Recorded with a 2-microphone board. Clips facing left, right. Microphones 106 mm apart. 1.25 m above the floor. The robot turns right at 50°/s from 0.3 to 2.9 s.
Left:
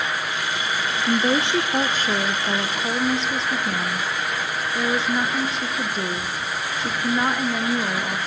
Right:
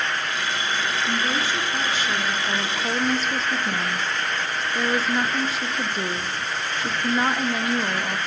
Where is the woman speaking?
90° left, 0.6 m; by 8.2 s straight behind, 0.6 m.